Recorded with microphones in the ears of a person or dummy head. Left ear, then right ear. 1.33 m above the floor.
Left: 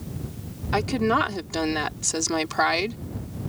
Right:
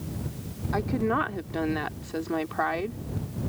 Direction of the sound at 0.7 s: 75° left (ahead or behind).